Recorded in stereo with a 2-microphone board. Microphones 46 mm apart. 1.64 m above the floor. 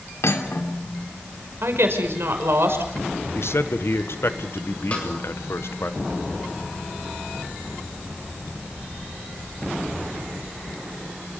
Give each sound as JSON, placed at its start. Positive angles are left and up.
{"t": 0.2, "sound": "cutlery clinking", "side_deg": 75, "distance_m": 3.0}
{"t": 1.6, "sound": "a woman speaking", "side_deg": -65, "distance_m": 5.5}
{"t": 3.4, "sound": "a man speaking", "side_deg": 70, "distance_m": 1.6}
{"t": 4.9, "sound": "a snare drum", "side_deg": 25, "distance_m": 8.0}